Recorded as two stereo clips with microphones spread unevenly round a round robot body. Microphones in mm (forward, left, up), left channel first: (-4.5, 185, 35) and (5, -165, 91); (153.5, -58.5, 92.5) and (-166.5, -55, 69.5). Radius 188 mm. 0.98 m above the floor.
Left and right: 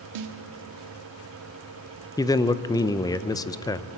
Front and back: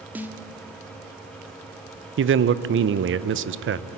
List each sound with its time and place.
0.1 s a snare drum: 95° right, 1.5 m
2.2 s a man speaking: 155° left, 0.7 m